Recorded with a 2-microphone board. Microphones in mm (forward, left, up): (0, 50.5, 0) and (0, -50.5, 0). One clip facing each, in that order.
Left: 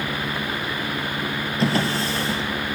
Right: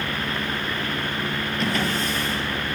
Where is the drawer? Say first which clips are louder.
Left 4 dB; 35° left (ahead or behind), 4.5 m.